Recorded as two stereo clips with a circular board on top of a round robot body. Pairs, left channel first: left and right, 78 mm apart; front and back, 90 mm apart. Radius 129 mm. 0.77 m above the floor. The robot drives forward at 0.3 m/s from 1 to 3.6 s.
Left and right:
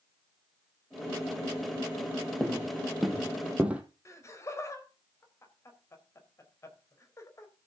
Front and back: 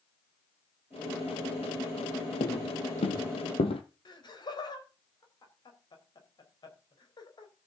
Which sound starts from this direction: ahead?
Footsteps, at 2.4 s.